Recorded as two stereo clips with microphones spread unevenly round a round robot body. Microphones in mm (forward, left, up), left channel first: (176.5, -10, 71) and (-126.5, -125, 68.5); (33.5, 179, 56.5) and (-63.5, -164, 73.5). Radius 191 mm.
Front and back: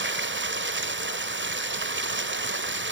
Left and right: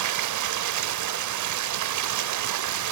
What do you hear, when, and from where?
0.0 s running water: 115° right, 1.7 m